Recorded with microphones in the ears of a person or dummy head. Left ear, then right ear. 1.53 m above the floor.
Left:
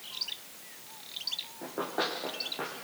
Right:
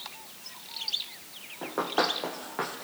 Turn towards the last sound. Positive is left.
turn(degrees=-60)  # may be behind; listen again after turning